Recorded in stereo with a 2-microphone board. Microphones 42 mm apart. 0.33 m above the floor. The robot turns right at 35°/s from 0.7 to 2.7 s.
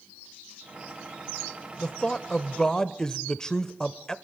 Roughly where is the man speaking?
Left.